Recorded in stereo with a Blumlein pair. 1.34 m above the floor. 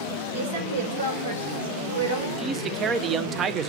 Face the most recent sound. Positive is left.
turn(degrees=-25)